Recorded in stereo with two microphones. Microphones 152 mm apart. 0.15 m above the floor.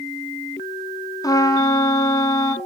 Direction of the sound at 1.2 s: 25° left (ahead or behind).